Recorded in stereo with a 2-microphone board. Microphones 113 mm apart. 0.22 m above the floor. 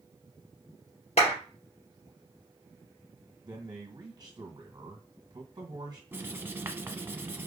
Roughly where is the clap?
Left.